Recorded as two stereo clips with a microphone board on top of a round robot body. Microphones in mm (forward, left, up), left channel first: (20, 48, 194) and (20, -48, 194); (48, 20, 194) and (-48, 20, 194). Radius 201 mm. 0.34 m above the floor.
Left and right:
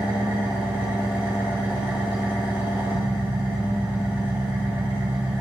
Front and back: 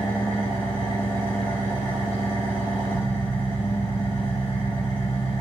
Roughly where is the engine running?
Ahead.